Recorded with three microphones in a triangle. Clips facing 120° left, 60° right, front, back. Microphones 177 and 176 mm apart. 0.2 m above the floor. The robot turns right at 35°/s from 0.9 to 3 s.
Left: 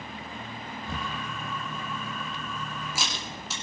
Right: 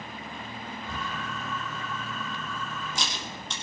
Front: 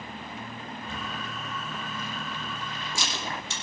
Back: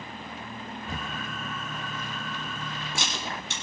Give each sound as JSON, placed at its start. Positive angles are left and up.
{"t": 0.9, "sound": "a camera shutter", "azimuth_deg": 130, "distance_m": 5.5}